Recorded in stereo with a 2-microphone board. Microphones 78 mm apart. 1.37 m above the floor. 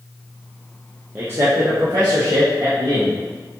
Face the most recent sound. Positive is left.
turn(degrees=-75)  # may be behind; listen again after turning